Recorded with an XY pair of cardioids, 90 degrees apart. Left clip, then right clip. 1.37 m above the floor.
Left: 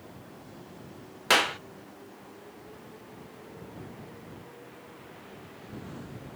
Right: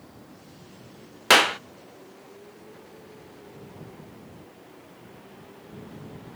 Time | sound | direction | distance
1.3 | a clap | 45° right | ?